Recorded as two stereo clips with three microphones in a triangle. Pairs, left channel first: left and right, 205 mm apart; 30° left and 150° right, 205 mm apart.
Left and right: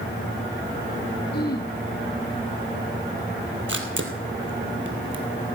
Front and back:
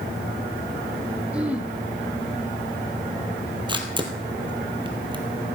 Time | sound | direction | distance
1.3 | throat clearing | 125° left | 1.5 m
3.7 | a camera shutter | 85° right | 1.4 m